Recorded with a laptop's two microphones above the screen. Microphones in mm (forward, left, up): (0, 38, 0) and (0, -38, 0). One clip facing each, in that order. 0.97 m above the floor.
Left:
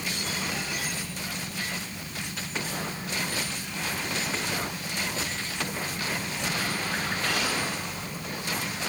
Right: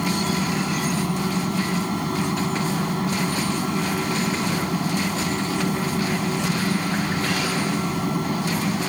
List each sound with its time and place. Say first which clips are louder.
0.0 s a fan: right 10 dB; 70° right (ahead or behind)